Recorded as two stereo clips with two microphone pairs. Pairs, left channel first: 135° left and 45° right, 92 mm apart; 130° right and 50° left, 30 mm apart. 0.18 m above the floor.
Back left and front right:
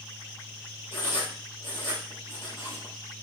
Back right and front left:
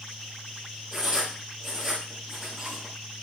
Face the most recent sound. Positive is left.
turn(degrees=140)